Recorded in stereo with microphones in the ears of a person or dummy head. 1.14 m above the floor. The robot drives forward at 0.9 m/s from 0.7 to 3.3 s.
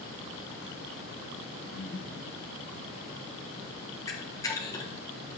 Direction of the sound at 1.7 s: 45° left (ahead or behind).